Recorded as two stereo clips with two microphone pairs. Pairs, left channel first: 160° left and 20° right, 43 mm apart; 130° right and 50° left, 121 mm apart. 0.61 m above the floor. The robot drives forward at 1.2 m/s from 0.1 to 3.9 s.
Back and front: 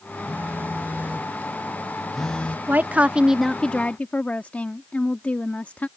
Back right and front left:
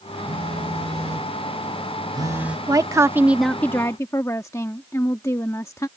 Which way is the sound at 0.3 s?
10° left.